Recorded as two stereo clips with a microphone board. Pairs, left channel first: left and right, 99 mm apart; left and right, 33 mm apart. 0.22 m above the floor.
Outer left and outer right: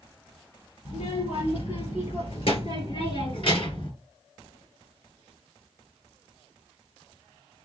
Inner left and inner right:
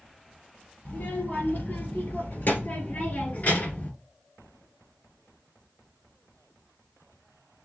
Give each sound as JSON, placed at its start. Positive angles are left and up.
{"t": 0.8, "sound": "a child speaking", "side_deg": 70, "distance_m": 3.5}